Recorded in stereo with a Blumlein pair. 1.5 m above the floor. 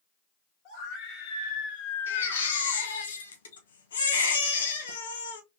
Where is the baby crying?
65° left, 1.2 m.